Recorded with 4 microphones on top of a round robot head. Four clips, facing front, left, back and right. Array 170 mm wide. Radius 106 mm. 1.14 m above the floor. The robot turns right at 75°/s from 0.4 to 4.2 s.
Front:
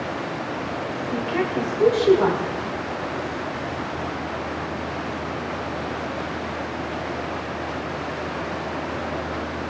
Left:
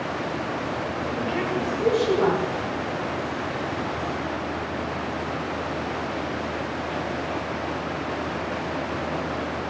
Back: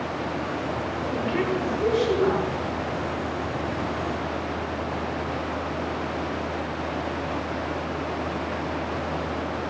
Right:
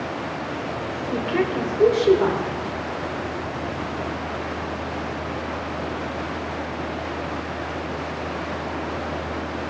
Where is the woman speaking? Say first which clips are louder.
Right 5 dB, front 2 dB; 115° right, 4.5 m; by 2.4 s 15° right, 4.5 m.